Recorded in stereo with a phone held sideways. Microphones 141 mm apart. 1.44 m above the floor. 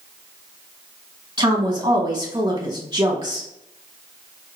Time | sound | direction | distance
1.4 | a woman speaking | 35° right (ahead or behind) | 1.4 m